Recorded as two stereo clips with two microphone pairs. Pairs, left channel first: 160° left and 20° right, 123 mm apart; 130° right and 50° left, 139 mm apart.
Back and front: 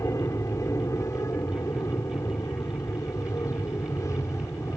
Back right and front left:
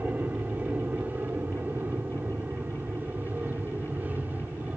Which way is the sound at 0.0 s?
120° left.